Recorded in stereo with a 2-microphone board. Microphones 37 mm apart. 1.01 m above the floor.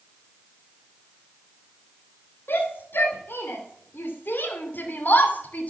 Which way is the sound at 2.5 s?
75° left (ahead or behind).